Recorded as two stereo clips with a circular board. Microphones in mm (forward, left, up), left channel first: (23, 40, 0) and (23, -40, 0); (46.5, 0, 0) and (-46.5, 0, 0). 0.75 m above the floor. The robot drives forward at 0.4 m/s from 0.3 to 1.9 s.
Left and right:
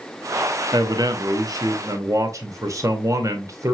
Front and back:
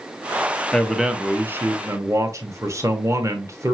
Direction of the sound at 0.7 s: 85° right.